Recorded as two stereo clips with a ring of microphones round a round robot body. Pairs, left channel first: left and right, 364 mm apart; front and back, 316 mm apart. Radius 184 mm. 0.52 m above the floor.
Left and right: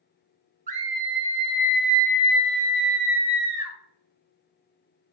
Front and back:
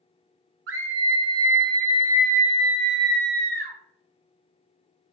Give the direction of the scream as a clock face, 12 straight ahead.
5 o'clock.